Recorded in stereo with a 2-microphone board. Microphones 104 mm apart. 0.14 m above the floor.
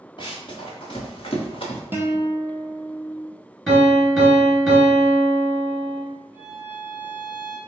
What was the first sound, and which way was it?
Running footsteps, 45° left (ahead or behind).